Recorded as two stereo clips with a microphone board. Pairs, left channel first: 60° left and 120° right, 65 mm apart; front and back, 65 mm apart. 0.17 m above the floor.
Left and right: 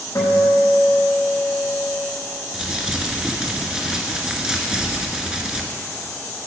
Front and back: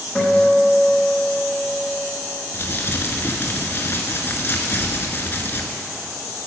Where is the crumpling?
45° right, 1.1 m.